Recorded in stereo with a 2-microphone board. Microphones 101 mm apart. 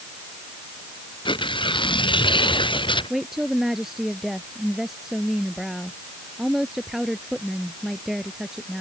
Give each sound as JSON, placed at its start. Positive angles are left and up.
{"t": 1.2, "sound": "tearing paper", "side_deg": 55}
{"t": 3.1, "sound": "a woman speaking", "side_deg": -5}